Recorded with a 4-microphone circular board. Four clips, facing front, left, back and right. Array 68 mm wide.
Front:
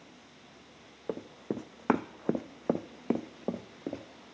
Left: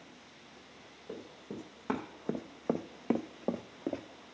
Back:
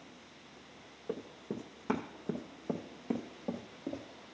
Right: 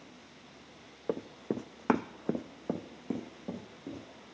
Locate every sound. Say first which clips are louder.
1.1 s running footsteps: right 10 dB, front 4 dB; 55° right, 0.9 m; by 4.0 s 60° left, 1.1 m